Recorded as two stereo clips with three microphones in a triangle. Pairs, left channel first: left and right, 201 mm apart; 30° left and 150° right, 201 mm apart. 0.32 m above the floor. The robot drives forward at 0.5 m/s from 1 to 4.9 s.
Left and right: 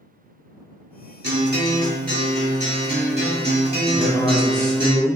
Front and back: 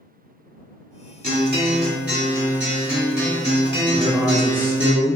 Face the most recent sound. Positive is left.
turn(degrees=145)